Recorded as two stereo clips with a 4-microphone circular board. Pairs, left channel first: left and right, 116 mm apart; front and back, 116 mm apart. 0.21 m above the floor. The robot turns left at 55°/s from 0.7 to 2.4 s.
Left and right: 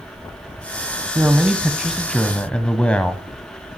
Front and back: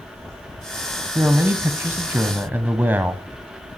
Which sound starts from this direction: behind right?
A man speaking, at 1.1 s.